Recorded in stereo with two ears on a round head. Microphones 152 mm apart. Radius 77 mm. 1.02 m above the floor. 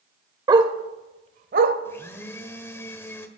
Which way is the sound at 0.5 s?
25° right (ahead or behind).